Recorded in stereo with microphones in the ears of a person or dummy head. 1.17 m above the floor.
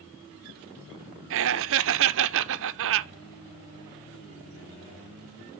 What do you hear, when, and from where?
1.3 s laughter: 65° right (ahead or behind), 0.7 m